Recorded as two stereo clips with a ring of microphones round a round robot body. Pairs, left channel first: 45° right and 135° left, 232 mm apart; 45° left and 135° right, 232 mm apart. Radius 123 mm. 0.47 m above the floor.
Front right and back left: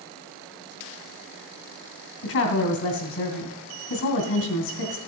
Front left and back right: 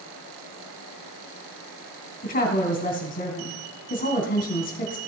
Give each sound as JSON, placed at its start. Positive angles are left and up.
{"t": 2.2, "sound": "a woman speaking", "azimuth_deg": -10, "distance_m": 2.5}